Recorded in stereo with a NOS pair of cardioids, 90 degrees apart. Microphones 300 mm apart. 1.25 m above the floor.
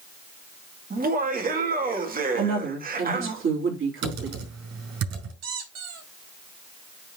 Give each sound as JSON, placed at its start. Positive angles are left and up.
{"t": 0.9, "sound": "laughter", "azimuth_deg": -30, "distance_m": 1.9}
{"t": 2.3, "sound": "a woman speaking", "azimuth_deg": -45, "distance_m": 3.5}
{"t": 4.0, "sound": "typing on a keyboard", "azimuth_deg": -65, "distance_m": 5.0}
{"t": 5.4, "sound": "a squeak", "azimuth_deg": -60, "distance_m": 4.0}